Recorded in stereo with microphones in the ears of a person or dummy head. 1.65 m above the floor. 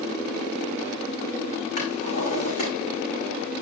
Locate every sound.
1.8 s a drawer: 40° left (ahead or behind), 6 m